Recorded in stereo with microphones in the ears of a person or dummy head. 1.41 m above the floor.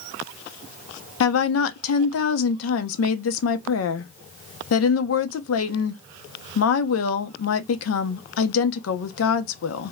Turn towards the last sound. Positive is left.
turn(degrees=80)